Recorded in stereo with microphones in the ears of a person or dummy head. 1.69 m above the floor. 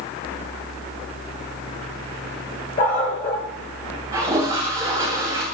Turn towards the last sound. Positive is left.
turn(degrees=-20)  # may be behind; listen again after turning